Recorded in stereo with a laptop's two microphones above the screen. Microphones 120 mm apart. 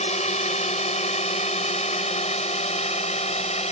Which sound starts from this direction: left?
A drone, at 0.0 s.